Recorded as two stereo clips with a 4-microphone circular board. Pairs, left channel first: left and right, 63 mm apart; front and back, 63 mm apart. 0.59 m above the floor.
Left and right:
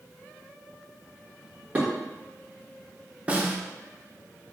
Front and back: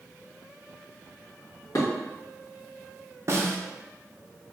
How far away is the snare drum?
About 0.7 m.